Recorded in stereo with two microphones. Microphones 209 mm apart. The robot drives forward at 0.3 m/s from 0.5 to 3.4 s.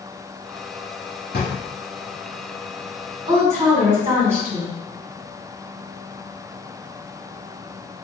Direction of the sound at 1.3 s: 50° left (ahead or behind).